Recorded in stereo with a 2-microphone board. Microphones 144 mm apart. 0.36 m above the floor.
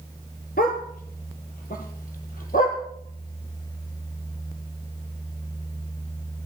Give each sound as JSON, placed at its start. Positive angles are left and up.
{"t": 0.6, "sound": "a dog barking", "side_deg": 85, "distance_m": 2.0}